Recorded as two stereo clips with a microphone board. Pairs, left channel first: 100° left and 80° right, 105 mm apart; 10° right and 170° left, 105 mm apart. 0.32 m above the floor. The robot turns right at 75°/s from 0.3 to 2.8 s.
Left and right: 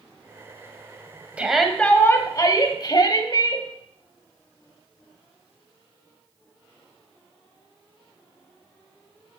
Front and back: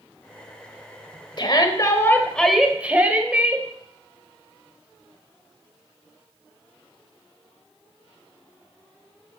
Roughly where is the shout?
Ahead.